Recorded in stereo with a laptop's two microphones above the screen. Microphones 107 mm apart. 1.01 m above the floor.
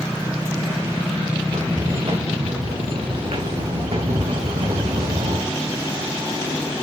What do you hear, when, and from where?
1.4 s footsteps: 65° right (ahead or behind), 6.5 m; by 5.5 s 75° right (ahead or behind), 4 m